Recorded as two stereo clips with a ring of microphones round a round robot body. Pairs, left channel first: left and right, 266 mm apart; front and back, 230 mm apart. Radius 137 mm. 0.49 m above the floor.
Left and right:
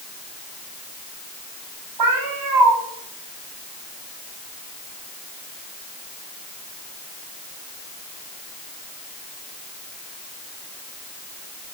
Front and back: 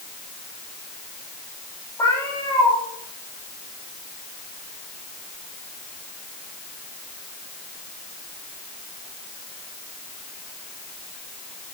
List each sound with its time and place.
2.0 s a cat meowing: 80° right, 8.5 m